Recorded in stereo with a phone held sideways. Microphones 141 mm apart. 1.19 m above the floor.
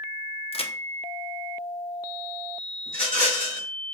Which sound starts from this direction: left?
A crack, at 0.5 s.